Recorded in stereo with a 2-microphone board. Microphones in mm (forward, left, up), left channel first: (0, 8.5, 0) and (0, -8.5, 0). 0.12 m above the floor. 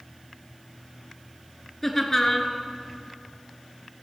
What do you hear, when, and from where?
1.8 s laughter: 20° left (ahead or behind), 1.4 m